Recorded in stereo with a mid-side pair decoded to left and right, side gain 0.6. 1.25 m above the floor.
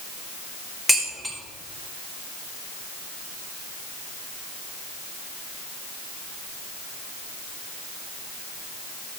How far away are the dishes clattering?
About 3.5 m.